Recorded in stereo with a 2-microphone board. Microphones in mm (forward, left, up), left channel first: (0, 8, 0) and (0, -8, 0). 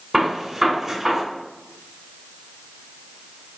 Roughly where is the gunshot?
Right.